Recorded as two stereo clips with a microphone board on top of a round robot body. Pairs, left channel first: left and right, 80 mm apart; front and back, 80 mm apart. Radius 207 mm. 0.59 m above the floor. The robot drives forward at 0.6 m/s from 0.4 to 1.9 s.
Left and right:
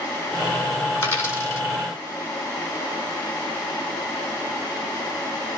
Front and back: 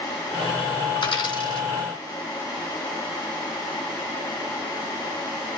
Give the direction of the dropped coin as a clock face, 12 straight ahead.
11 o'clock.